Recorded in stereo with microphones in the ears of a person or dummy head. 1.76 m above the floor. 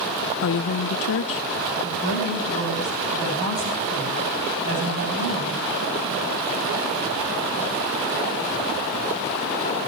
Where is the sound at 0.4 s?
60° left (ahead or behind), 0.6 m.